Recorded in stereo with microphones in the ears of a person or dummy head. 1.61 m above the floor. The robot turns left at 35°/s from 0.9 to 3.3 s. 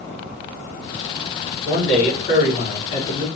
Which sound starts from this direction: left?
A man speaking, at 1.6 s.